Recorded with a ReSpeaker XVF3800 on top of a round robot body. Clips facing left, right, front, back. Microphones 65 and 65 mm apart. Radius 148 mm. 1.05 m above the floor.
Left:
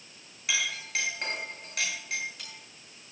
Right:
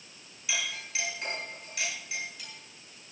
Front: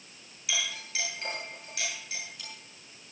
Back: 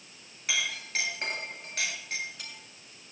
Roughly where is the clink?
Behind left.